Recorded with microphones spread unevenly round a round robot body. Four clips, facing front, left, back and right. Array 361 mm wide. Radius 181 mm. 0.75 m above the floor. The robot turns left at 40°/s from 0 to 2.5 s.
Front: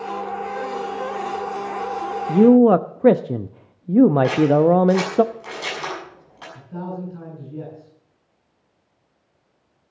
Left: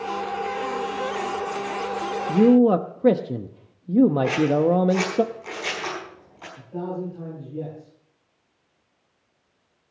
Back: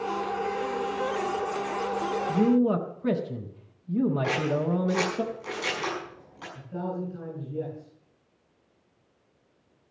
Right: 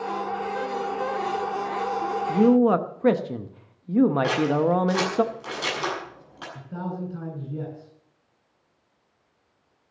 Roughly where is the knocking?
I don't hear knocking.